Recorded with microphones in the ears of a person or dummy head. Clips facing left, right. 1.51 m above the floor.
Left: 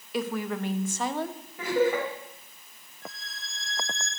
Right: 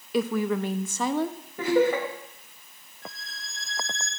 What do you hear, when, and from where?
0.1 s a woman speaking: 75° right (ahead or behind), 0.6 m
1.6 s laughter: 55° right (ahead or behind), 2.5 m
3.0 s a violin: 40° right (ahead or behind), 2.5 m